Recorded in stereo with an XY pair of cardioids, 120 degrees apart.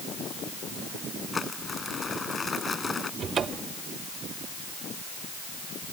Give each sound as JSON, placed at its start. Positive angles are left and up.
{"t": 1.3, "sound": "crumpling", "azimuth_deg": 25}
{"t": 3.2, "sound": "a cupboard door", "azimuth_deg": -40}